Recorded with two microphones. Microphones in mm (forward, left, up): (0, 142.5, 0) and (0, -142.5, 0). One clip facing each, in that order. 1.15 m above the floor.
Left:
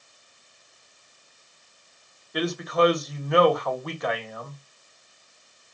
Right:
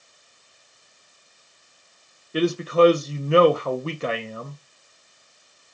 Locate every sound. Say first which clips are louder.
2.3 s a man speaking: right 5 dB; 30° right (ahead or behind), 0.5 m